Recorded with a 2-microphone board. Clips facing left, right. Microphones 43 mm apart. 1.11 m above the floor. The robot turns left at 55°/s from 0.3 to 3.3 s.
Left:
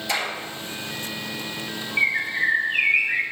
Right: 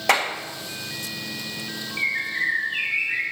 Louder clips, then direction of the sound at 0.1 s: Right 6 dB; 75° right (ahead or behind).